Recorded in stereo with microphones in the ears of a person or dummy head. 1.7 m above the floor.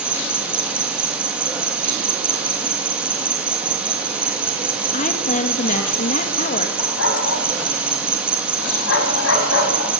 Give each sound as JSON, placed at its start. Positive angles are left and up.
{"t": 0.0, "sound": "an insect", "side_deg": -5, "distance_m": 1.8}
{"t": 4.9, "sound": "a woman speaking", "side_deg": 40, "distance_m": 2.5}
{"t": 6.8, "sound": "a dog barking", "side_deg": 75, "distance_m": 4.5}